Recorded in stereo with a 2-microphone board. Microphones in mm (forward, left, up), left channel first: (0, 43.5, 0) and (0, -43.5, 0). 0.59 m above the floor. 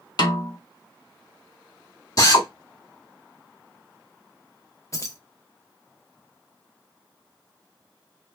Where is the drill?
40° left (ahead or behind), 0.8 m.